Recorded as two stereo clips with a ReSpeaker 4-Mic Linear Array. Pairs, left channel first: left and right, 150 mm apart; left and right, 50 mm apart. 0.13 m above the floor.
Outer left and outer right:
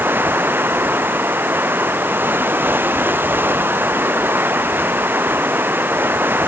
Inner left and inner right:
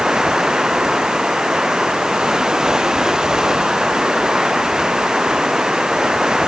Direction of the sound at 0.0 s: 15° right (ahead or behind).